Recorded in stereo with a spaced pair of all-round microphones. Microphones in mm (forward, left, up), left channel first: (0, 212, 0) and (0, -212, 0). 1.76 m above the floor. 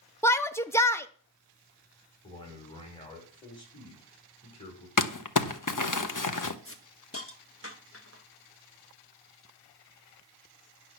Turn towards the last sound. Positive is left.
turn(degrees=30)  # may be behind; listen again after turning